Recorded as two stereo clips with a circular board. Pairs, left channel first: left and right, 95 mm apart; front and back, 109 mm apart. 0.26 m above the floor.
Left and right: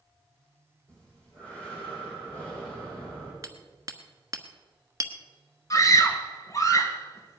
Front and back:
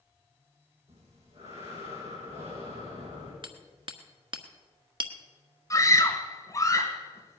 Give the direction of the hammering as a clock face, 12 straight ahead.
5 o'clock.